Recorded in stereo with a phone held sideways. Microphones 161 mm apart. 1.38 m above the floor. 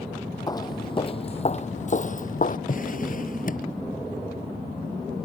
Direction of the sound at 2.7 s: 50° left (ahead or behind).